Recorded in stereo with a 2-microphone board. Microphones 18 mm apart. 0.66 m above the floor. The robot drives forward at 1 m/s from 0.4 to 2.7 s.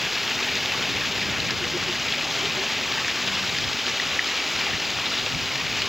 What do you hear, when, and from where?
0.0 s running water: 10° right (ahead or behind)